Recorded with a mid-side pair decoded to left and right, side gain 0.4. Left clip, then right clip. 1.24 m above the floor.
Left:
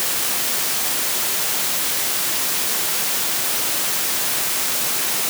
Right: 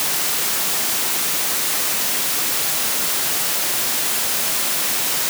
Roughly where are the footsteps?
No footsteps in this recording.